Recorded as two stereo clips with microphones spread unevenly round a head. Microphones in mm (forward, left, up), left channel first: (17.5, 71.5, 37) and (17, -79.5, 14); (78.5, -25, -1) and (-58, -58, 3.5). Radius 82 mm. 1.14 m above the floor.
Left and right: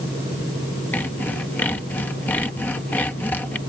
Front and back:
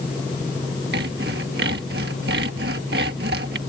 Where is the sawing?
170° left.